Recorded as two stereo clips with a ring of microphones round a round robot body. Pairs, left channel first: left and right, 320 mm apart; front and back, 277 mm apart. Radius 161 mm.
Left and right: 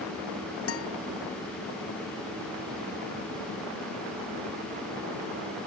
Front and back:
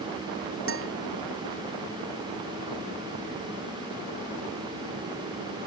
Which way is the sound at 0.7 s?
140° left.